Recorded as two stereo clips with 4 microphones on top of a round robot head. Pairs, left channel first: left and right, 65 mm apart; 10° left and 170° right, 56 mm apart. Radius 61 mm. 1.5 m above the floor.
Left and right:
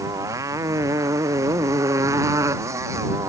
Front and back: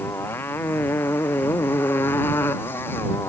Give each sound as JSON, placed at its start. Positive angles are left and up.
{"t": 0.0, "sound": "a motorcycle", "azimuth_deg": -50}